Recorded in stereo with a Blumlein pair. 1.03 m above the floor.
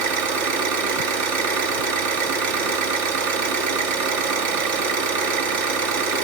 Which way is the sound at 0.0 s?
50° right.